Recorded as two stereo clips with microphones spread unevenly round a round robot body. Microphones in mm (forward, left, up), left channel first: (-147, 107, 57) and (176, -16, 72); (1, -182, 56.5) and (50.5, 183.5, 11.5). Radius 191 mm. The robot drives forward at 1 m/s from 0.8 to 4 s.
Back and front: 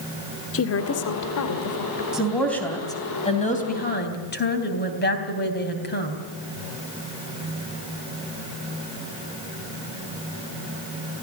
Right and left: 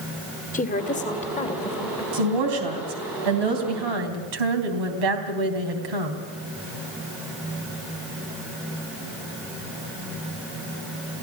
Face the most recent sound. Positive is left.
turn(degrees=100)